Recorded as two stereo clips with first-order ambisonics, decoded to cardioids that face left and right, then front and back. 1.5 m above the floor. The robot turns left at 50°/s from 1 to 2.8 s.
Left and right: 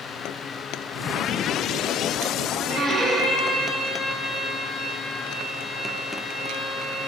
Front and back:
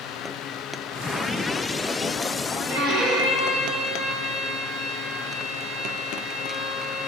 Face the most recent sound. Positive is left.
turn(degrees=-150)